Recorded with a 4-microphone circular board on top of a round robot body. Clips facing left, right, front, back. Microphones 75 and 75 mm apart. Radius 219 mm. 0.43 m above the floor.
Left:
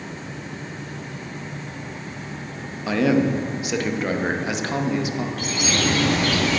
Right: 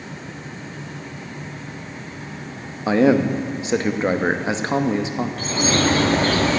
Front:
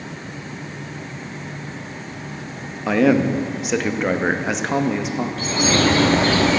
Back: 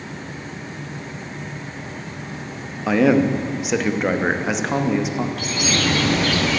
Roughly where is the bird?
Ahead right.